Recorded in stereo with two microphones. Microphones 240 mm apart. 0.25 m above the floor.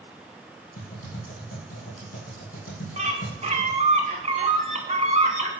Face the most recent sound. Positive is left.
turn(degrees=-30)  # may be behind; listen again after turning